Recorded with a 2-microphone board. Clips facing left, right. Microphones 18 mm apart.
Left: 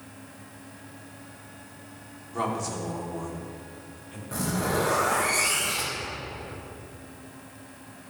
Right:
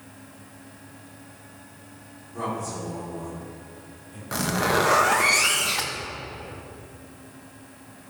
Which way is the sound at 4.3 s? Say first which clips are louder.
Right 5 dB; 55° right (ahead or behind).